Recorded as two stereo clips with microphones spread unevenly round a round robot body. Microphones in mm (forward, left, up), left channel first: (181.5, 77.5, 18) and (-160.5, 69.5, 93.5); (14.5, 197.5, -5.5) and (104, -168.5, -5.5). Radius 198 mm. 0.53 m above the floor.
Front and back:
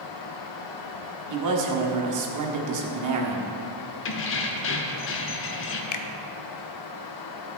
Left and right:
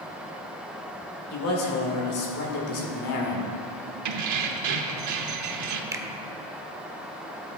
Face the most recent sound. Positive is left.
turn(degrees=5)